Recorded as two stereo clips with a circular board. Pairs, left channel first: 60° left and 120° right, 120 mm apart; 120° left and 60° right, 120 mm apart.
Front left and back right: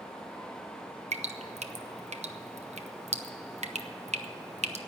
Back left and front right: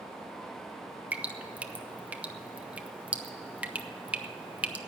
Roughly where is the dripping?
Behind right.